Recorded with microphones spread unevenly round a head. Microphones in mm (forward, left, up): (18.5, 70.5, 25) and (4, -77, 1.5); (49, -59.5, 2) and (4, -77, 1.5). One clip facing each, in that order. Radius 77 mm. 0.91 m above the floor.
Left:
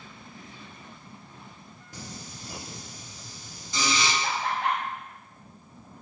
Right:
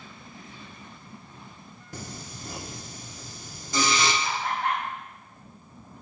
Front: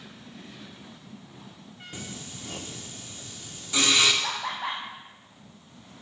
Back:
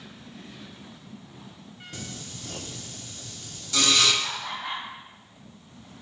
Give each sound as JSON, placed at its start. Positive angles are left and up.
{"t": 1.9, "sound": "singing", "azimuth_deg": -50, "distance_m": 1.5}
{"t": 4.2, "sound": "laughter", "azimuth_deg": 50, "distance_m": 1.0}